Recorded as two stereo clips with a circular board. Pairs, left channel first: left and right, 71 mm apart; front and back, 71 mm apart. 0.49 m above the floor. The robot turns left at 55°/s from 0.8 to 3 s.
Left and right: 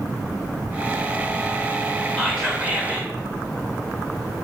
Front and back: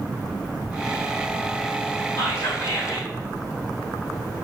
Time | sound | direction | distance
2.2 | whispering | 10° left | 1.7 m